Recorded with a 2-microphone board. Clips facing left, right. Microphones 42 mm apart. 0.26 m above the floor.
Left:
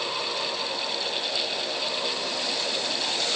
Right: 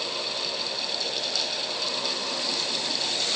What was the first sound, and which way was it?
Only background noise.